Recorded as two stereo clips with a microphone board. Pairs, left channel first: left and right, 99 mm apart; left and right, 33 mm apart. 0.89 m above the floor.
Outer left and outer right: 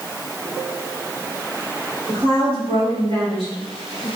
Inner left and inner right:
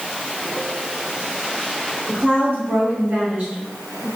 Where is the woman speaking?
70° right (ahead or behind), 2 m; by 4.1 s 45° right (ahead or behind), 1.7 m.